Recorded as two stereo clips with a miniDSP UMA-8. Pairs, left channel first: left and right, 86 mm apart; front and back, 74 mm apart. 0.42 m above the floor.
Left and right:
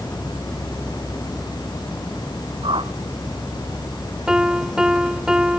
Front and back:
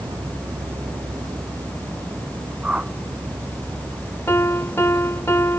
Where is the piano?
15° right.